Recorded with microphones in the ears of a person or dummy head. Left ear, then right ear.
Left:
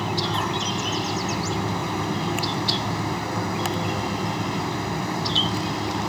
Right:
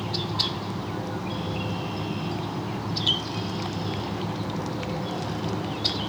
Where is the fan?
70° left (ahead or behind).